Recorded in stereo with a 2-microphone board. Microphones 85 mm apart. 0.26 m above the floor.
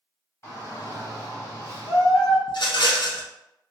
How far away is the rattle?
About 0.6 m.